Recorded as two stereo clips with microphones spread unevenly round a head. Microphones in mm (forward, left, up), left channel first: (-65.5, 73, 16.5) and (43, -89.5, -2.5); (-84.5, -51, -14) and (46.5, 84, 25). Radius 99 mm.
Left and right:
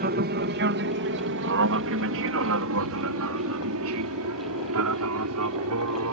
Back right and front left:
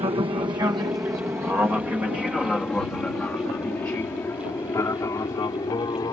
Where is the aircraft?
20° right; by 6.1 s 60° right.